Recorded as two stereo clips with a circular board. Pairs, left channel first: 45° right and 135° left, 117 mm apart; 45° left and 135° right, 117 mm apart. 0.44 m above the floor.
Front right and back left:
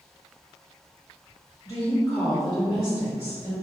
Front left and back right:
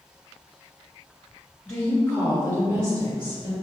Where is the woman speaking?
10° right, 1.3 m; by 3.5 s 170° right, 1.7 m.